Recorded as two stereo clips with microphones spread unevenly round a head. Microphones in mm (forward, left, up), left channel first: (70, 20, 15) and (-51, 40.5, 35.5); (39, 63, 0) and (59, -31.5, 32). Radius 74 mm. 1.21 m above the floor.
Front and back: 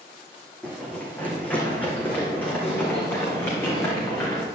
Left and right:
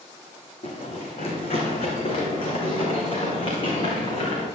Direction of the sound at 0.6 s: 75° left.